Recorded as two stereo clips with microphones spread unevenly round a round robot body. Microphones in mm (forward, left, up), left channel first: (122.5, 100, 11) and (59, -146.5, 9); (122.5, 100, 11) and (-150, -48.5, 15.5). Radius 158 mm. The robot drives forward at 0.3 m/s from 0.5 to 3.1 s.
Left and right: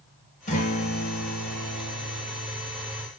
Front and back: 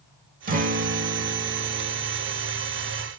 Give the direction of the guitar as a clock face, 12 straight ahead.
7 o'clock.